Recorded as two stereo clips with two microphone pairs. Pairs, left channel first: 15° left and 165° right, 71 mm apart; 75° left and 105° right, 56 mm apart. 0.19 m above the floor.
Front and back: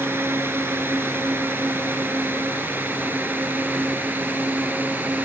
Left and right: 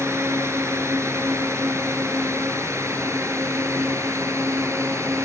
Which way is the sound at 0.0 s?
115° right.